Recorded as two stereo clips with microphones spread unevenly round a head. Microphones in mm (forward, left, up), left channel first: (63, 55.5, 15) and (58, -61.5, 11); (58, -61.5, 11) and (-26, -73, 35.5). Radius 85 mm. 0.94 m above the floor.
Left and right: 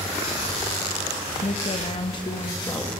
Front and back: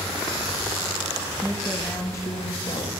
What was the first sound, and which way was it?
A woman speaking, 95° left.